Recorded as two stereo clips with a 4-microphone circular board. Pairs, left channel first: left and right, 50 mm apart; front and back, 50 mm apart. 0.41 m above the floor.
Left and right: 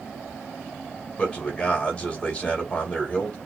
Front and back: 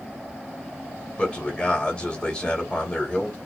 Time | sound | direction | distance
1.2 | a man speaking | 50° left | 1.2 m